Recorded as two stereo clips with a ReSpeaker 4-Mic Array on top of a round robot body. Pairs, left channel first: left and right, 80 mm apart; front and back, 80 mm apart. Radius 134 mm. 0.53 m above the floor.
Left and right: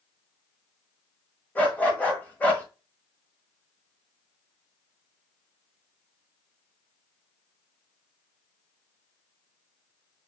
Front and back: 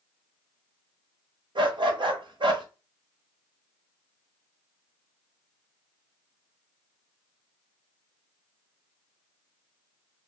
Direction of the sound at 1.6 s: 160° left.